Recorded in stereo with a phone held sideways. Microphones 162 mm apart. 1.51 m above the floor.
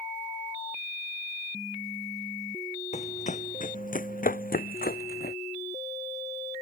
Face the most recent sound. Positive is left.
turn(degrees=70)  # may be behind; listen again after turning